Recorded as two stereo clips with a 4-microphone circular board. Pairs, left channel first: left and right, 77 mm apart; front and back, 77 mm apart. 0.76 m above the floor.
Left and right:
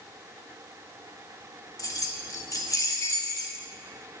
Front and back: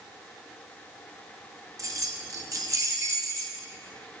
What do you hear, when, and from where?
1.8 s keys jangling: 135° left, 0.7 m